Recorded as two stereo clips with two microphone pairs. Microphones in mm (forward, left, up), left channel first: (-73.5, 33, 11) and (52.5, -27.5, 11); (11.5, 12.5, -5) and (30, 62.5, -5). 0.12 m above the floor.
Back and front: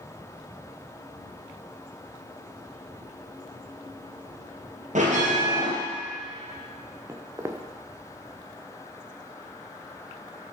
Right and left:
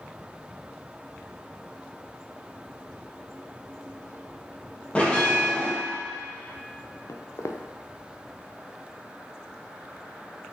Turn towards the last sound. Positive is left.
turn(degrees=-95)